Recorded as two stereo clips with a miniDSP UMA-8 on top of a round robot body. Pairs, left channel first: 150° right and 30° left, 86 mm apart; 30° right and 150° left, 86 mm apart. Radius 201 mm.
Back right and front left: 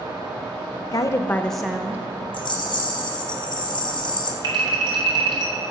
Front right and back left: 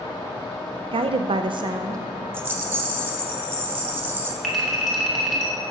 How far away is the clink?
About 1.8 m.